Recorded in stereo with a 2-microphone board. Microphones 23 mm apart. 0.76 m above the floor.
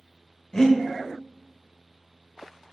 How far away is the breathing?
About 0.7 m.